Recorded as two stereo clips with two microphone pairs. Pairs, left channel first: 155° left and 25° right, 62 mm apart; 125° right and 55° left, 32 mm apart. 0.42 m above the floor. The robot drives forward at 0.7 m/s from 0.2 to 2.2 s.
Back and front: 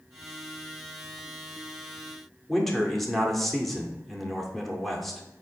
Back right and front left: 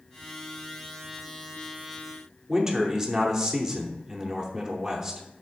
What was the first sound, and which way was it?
A man speaking, 80° left.